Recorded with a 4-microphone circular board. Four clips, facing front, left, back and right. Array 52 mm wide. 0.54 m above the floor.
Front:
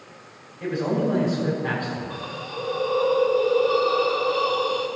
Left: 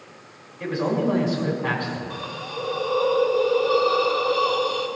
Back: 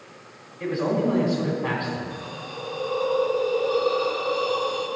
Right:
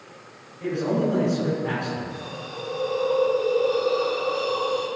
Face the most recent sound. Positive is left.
turn(degrees=65)